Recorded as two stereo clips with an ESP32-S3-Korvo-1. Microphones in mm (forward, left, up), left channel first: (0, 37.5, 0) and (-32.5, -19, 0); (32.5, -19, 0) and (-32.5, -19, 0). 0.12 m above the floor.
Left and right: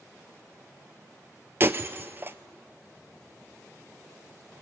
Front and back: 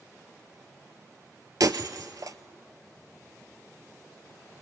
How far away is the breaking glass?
About 0.7 m.